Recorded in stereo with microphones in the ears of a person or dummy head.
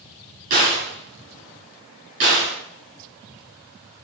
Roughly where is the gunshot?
Right.